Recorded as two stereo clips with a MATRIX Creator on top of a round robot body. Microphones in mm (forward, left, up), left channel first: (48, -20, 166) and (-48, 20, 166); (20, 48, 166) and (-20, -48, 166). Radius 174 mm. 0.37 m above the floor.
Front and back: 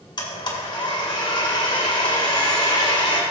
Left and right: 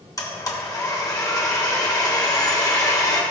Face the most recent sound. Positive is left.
turn(degrees=15)